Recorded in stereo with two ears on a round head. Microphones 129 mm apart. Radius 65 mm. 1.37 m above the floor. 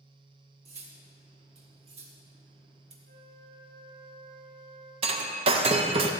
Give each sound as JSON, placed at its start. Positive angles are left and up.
{"t": 0.7, "sound": "cutlery clinking", "side_deg": -45, "distance_m": 1.1}
{"t": 3.0, "sound": "a flute", "side_deg": -45, "distance_m": 2.0}
{"t": 5.0, "sound": "breaking glass", "side_deg": -40, "distance_m": 0.6}